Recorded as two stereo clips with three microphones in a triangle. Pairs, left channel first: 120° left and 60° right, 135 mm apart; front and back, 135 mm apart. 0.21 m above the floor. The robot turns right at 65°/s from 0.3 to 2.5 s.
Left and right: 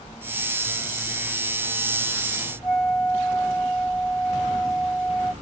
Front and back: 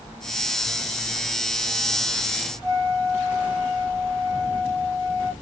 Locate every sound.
2.6 s a flute: 130° left, 2.5 m